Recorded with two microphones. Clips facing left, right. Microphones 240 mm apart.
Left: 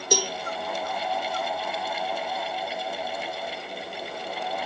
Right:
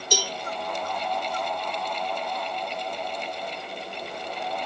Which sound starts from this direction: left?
A cowbell, at 0.1 s.